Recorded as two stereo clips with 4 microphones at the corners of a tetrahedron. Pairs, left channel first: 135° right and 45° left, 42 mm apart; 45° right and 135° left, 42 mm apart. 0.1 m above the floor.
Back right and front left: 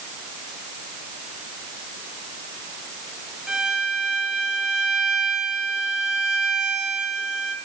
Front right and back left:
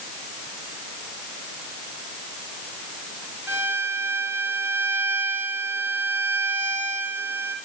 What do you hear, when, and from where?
3.5 s a violin: 125° left, 3.5 m